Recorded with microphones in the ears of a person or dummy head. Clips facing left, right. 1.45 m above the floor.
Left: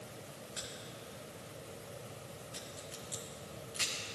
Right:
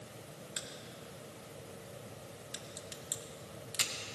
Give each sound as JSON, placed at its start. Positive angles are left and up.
{"t": 0.6, "sound": "a crack", "side_deg": -55, "distance_m": 1.2}